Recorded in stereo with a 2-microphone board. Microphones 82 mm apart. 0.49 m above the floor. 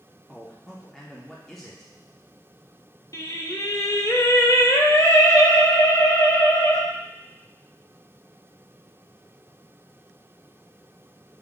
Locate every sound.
0.3 s a man speaking: 5° left (ahead or behind), 0.7 m
3.1 s singing: 45° left (ahead or behind), 0.6 m